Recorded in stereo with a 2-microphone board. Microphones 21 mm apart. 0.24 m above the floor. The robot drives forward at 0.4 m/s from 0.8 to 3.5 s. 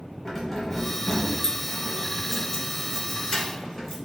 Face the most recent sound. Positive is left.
turn(degrees=15)  # may be behind; listen again after turning